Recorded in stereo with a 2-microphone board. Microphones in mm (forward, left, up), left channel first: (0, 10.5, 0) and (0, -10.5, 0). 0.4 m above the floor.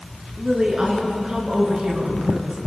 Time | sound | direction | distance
0.4 | a woman speaking | 35° right (ahead or behind) | 6.5 m